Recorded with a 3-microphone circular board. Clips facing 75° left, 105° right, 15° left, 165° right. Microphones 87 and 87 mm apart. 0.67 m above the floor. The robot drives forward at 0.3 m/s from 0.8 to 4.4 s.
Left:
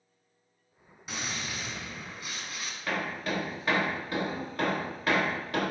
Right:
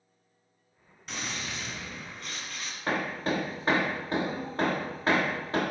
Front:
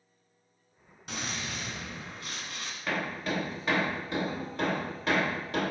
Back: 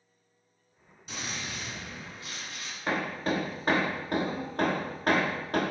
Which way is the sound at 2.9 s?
130° right.